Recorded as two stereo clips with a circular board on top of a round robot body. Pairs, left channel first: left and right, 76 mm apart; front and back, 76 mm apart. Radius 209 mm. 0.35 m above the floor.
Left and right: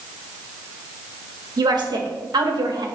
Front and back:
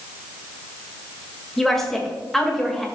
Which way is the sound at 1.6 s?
85° right.